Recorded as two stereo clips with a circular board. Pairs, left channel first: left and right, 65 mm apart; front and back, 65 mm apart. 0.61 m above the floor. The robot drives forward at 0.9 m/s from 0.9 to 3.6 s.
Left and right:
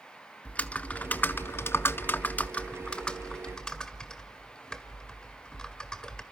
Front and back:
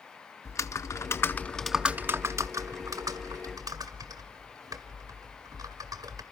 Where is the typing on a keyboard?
25° left, 0.9 m; by 6.2 s 170° left, 1.8 m.